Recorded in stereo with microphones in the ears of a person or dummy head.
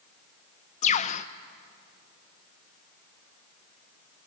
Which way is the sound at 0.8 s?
35° left (ahead or behind).